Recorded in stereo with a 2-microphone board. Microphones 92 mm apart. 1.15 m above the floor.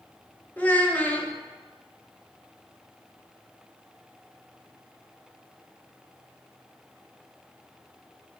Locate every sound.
0.6 s a child speaking: 15° left (ahead or behind), 0.7 m